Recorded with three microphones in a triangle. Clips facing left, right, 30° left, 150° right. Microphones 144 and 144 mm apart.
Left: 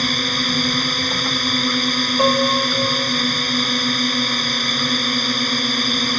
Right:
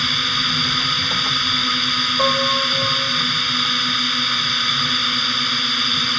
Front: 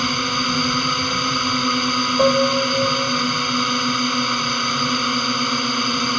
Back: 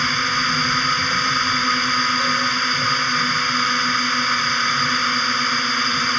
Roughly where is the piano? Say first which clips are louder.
Left 3 dB, front 9 dB; ahead.